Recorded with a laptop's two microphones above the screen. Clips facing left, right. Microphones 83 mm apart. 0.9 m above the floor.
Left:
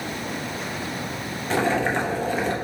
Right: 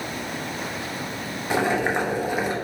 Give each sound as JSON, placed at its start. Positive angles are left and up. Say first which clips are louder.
{"t": 1.5, "sound": "boiling", "louder": "even", "side_deg": -10, "distance_m": 0.6}